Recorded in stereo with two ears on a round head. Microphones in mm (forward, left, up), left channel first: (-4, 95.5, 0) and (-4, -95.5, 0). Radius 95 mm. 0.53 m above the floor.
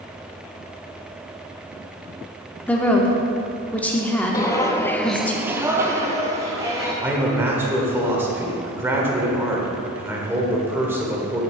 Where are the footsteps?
15° left (ahead or behind), 1.0 m; by 6.9 s 15° right (ahead or behind), 2 m.